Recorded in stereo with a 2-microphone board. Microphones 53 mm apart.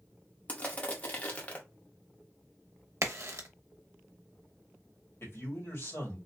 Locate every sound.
0.5 s crushing: 30° left (ahead or behind), 0.7 m
3.0 s a crack: 60° right (ahead or behind), 0.6 m
5.2 s a man speaking: 55° left (ahead or behind), 1.6 m